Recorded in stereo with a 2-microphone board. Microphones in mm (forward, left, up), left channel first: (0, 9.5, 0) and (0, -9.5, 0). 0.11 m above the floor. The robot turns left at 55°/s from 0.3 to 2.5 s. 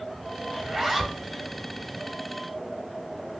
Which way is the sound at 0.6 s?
150° right.